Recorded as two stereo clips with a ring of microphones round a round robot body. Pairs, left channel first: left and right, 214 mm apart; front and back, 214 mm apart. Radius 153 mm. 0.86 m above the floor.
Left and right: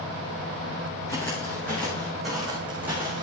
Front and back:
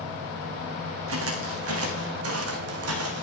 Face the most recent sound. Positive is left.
turn(degrees=-170)